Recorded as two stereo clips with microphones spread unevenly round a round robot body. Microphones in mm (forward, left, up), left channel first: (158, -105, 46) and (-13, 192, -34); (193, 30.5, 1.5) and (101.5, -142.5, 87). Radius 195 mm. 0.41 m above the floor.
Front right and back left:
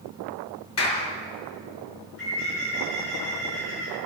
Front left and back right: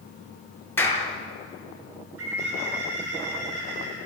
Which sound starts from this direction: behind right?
A bird, at 2.2 s.